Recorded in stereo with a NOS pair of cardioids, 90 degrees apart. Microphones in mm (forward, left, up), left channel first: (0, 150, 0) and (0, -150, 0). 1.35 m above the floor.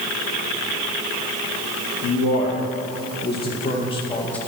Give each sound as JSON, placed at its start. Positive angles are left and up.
{"t": 2.0, "sound": "a man speaking", "azimuth_deg": 60, "distance_m": 2.5}